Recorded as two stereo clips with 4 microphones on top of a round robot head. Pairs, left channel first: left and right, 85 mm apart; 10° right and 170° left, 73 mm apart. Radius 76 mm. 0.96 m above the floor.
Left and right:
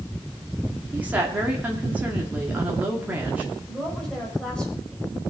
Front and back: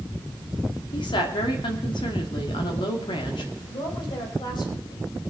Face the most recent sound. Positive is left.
turn(degrees=10)